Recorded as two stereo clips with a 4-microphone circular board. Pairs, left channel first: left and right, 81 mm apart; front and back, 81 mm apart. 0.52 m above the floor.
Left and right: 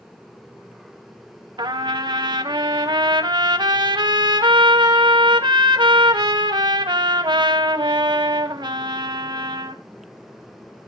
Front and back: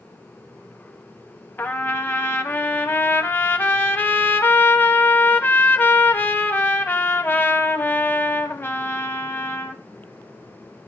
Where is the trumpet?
65° right, 0.9 m.